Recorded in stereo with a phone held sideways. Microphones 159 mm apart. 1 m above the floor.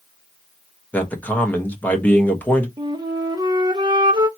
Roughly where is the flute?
Right.